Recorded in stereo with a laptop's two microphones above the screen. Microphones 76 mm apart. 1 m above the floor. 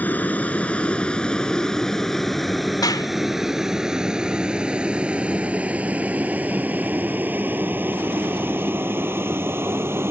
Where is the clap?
60° left (ahead or behind).